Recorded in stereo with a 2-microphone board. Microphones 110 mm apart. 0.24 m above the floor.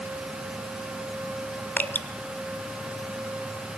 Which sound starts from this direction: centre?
Dripping, at 1.8 s.